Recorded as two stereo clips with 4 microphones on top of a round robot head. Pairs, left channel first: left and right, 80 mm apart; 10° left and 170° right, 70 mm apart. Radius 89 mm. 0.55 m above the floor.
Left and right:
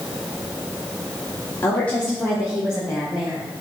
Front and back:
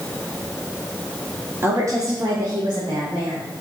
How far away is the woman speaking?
About 1.4 m.